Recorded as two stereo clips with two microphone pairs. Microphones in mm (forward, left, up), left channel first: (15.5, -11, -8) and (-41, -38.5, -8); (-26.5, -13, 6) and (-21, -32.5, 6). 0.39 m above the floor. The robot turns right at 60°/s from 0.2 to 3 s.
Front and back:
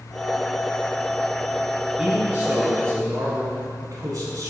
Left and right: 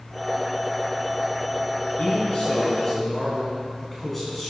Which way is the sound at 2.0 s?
120° left.